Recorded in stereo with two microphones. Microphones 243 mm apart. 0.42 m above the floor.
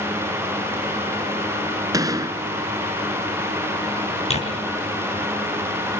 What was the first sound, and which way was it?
A gunshot, 15° right (ahead or behind).